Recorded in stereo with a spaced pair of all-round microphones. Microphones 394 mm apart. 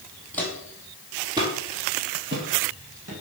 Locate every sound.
0.3 s footsteps: 5° left (ahead or behind), 3 m; by 3.2 s 40° right (ahead or behind), 3 m